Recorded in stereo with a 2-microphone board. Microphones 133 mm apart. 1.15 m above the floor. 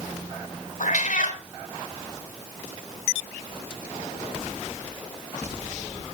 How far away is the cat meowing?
About 1.8 m.